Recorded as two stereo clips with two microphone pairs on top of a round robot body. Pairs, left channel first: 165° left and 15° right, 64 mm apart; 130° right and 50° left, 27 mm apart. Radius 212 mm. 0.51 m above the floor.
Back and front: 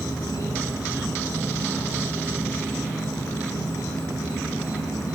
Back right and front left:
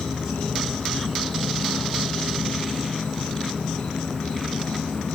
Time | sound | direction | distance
0.0 | an insect | 170° right | 6.5 m